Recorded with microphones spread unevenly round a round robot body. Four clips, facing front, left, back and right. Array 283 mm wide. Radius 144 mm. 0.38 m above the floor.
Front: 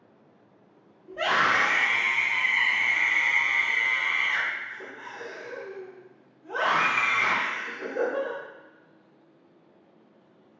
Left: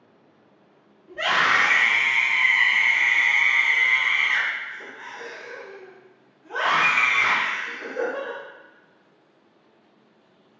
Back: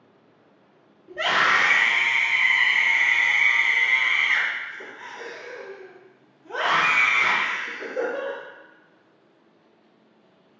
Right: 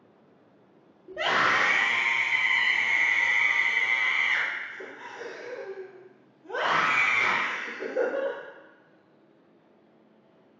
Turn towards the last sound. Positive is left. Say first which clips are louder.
# left 3 dB, back 2 dB
turn(degrees=-100)